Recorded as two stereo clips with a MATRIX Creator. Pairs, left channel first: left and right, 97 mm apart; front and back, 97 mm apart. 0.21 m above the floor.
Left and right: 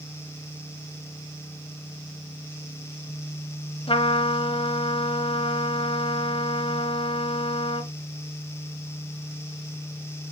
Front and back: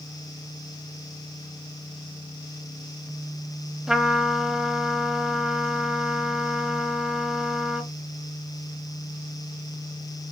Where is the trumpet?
95° left, 1.1 m.